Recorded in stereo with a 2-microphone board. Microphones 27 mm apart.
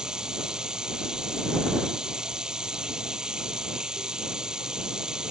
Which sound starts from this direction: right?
Running water, at 0.0 s.